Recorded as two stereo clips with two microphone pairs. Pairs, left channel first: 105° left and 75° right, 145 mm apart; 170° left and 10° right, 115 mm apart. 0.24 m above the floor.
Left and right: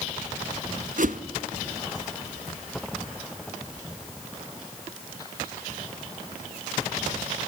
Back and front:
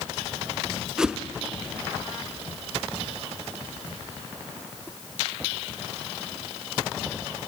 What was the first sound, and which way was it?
A whoosh, 90° right.